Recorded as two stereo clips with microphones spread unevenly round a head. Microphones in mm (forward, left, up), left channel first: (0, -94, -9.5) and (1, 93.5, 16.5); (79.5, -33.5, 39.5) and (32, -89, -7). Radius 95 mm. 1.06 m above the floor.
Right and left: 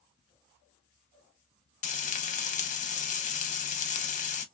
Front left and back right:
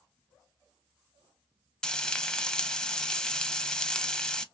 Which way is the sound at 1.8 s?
45° right.